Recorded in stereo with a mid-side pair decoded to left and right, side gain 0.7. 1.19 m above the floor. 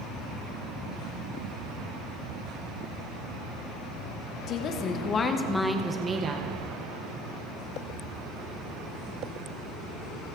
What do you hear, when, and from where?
4.5 s a woman speaking: 55° left, 1.3 m; by 6.5 s 45° right, 1.0 m